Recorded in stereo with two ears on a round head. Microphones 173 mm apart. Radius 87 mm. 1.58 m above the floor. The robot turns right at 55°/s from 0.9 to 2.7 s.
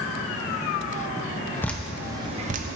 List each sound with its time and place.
1.6 s dripping: 10° left (ahead or behind), 0.6 m; by 2.8 s 45° right (ahead or behind), 0.6 m